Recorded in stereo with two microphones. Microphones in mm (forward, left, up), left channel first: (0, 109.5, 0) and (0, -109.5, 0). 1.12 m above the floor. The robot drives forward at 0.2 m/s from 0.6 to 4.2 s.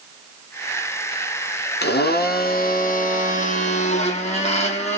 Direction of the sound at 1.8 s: 50° left (ahead or behind).